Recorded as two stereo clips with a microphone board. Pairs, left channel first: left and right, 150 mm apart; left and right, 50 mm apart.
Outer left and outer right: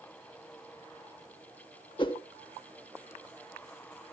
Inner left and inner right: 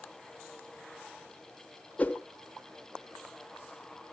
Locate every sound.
2.0 s a whoosh: 35° left (ahead or behind), 1.2 m